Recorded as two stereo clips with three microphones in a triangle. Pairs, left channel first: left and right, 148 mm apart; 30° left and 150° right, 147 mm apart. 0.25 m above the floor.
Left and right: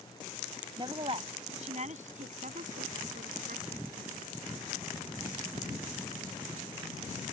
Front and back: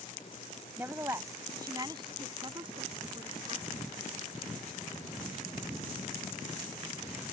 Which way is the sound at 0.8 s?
85° right.